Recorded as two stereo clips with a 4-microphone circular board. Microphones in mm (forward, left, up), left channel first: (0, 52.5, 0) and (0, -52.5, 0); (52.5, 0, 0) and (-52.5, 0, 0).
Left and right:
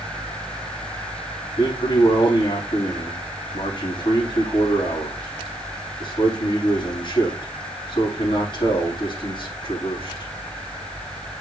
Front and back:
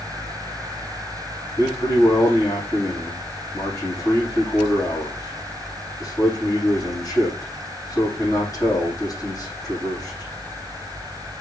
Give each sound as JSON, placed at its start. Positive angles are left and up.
{"t": 1.6, "sound": "a man speaking", "azimuth_deg": 50, "distance_m": 6.0}